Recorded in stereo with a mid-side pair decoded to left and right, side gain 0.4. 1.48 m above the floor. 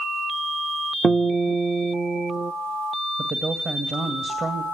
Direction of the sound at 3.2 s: 40° right.